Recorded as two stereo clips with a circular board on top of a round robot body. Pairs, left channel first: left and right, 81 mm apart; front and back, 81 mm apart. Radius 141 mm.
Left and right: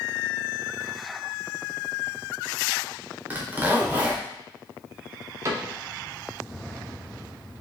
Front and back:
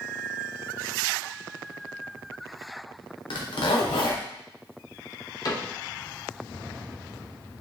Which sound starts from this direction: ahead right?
A cupboard door, at 5.5 s.